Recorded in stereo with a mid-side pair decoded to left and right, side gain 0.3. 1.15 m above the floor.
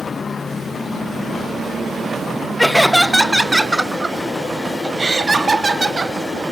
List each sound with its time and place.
2.6 s laughter: 10° left, 1.5 m; by 6.2 s 40° right, 3 m